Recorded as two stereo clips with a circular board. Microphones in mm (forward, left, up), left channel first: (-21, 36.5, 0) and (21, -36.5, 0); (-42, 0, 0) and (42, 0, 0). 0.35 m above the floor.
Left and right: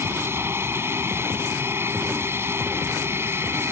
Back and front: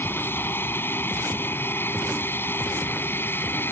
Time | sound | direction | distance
0.0 | an aircraft | 120° right | ?